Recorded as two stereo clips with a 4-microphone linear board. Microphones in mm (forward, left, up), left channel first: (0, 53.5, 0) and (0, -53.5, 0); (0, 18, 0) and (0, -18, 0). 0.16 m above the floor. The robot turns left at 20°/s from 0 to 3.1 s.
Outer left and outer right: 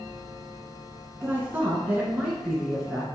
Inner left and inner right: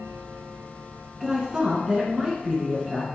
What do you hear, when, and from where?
1.2 s a woman speaking: 145° right, 1.6 m; by 3.0 s 175° left, 1.6 m